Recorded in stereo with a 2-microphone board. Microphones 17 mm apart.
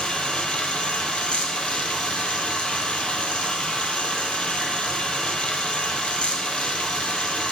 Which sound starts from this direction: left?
Running water, at 0.0 s.